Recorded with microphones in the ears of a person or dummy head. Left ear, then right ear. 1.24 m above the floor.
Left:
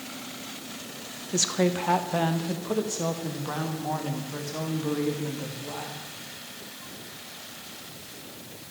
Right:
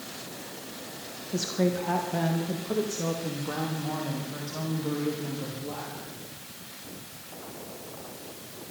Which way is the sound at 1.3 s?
40° left (ahead or behind).